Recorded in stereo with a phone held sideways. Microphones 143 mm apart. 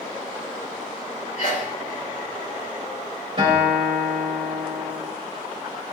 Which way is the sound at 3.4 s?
35° right (ahead or behind).